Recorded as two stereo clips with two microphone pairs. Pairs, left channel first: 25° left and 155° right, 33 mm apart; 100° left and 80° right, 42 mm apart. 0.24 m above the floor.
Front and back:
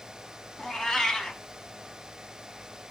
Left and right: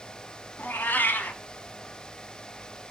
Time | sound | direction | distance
0.6 | a cat meowing | 95° left | 0.8 m